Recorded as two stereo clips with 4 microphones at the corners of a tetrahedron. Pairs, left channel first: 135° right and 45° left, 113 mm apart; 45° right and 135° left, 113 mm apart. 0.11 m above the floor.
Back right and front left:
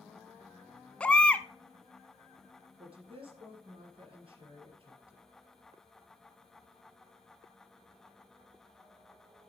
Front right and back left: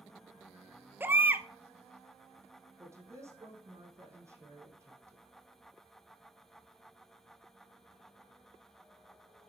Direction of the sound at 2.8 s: 75° left.